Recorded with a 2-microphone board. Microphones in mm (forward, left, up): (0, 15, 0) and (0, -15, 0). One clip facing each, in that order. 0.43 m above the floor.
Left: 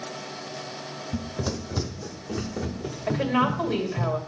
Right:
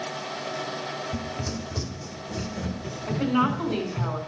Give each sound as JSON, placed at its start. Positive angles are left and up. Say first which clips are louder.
{"t": 1.1, "sound": "running footsteps", "louder": "left 1 dB", "side_deg": 50, "distance_m": 1.1}
{"t": 3.1, "sound": "a woman speaking", "louder": "even", "side_deg": 55, "distance_m": 2.0}